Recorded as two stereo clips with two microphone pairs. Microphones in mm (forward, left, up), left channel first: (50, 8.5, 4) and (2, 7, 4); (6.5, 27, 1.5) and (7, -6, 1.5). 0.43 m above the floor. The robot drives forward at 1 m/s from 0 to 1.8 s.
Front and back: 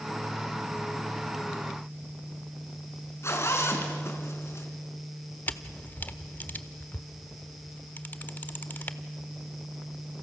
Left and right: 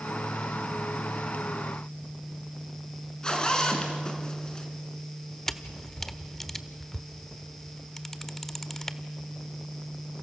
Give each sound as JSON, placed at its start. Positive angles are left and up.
{"t": 3.2, "sound": "a zipper", "azimuth_deg": 25, "distance_m": 3.5}
{"t": 5.5, "sound": "a camera shutter", "azimuth_deg": 20, "distance_m": 1.0}